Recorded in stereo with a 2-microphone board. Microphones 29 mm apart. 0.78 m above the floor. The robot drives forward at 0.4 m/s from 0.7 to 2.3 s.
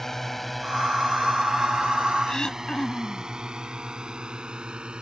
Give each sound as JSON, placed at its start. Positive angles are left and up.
{"t": 0.0, "sound": "a drone", "side_deg": 10}
{"t": 2.3, "sound": "throat clearing", "side_deg": 25}